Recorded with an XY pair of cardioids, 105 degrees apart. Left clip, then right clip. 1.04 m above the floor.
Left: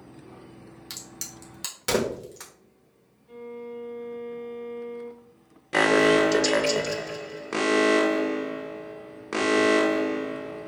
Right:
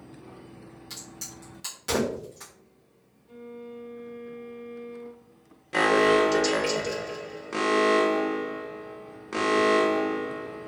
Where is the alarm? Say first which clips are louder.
Left 1 dB; 30° left, 0.5 m.